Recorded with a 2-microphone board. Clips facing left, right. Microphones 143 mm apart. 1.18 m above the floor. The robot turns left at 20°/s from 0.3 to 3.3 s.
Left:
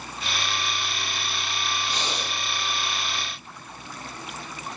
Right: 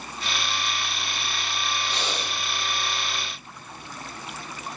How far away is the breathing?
About 7 m.